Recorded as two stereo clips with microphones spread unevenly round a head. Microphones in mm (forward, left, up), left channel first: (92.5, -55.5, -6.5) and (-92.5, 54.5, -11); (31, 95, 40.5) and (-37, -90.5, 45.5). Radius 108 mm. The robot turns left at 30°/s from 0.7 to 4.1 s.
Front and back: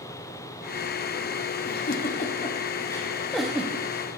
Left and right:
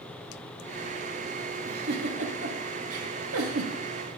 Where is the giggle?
65° right, 0.5 m; by 3.7 s 130° right, 0.5 m.